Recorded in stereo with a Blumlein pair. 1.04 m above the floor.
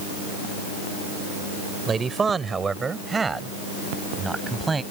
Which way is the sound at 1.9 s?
20° right.